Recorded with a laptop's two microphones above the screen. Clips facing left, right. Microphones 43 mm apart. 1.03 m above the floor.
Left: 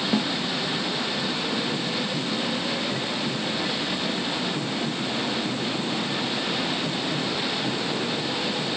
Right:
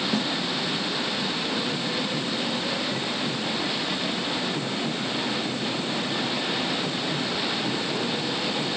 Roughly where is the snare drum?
Left.